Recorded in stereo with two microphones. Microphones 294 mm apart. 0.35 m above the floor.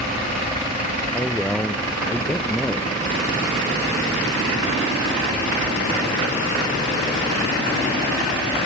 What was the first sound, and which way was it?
A man speaking, 5° left (ahead or behind).